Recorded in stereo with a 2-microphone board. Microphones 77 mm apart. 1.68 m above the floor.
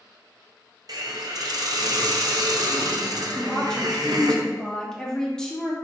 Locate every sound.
0.9 s a hiss: 55° right (ahead or behind), 0.6 m
3.4 s a woman speaking: 5° left (ahead or behind), 1.0 m